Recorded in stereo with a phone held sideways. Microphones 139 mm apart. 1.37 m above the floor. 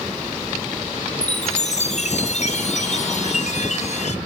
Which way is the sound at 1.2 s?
55° left (ahead or behind).